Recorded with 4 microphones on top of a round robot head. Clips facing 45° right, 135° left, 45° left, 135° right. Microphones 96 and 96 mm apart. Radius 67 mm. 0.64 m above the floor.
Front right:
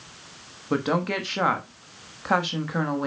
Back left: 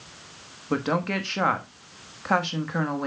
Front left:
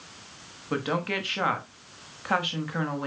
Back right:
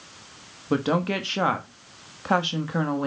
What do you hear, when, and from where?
0.7 s a woman speaking: 125° right, 1.1 m